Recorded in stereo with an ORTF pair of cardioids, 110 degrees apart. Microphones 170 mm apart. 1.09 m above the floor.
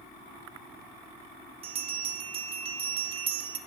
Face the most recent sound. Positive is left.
turn(degrees=-35)